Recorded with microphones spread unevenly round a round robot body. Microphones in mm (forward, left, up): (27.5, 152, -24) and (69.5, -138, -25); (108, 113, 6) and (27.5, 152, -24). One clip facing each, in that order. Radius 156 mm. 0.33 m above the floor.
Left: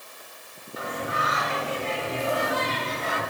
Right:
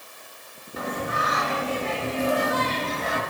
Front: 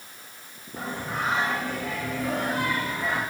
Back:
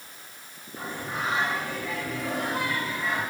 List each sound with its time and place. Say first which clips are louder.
0.8 s singing: right 2 dB, front 2 dB; 85° right, 1.5 m